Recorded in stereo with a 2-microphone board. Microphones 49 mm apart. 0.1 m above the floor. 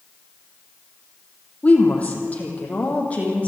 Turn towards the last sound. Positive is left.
turn(degrees=25)  # may be behind; listen again after turning